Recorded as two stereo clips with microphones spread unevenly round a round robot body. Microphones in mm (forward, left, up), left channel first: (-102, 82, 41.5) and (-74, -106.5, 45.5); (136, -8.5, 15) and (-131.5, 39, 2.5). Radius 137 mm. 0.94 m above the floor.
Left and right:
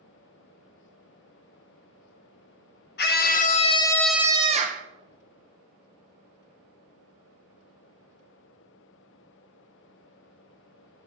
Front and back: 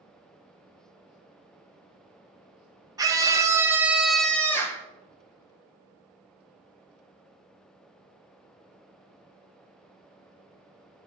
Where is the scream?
95° left, 1.0 m; by 4.8 s 90° right, 0.7 m.